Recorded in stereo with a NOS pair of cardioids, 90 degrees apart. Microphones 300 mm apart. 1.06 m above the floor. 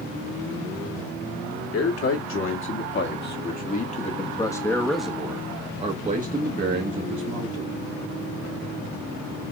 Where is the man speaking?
50° left, 2 m; by 7.7 s 50° right, 1.9 m.